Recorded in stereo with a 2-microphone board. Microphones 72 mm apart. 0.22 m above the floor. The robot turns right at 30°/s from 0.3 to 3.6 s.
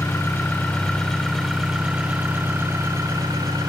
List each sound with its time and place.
0.0 s an engine running: 145° left, 5.5 m; by 3.7 s 115° right, 5.5 m